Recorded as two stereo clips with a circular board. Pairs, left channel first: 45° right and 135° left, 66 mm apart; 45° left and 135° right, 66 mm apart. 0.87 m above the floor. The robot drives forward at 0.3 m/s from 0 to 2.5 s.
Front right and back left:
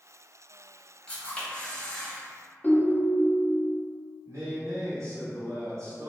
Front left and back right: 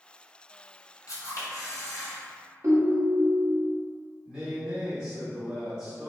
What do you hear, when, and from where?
1.1 s a camera shutter: 25° left, 1.0 m; by 2.2 s 35° left, 0.8 m
2.6 s a ringtone: 110° right, 0.7 m
4.2 s a man speaking: 150° left, 1.9 m